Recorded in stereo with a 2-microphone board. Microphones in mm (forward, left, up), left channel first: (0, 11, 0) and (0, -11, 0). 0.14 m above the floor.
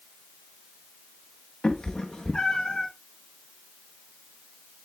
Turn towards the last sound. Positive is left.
turn(degrees=35)  # may be behind; listen again after turning